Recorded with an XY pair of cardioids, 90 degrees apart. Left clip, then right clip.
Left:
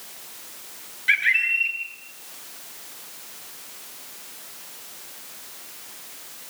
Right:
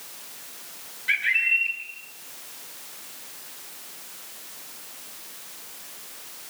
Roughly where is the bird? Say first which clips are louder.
Left 2 dB; ahead left.